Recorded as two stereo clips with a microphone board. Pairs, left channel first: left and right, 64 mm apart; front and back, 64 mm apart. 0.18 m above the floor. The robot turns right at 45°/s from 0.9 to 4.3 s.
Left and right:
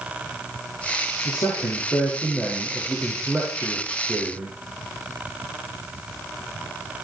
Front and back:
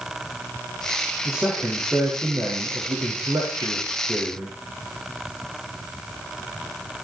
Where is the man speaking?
95° left, 7 m; by 4.6 s 130° right, 7 m.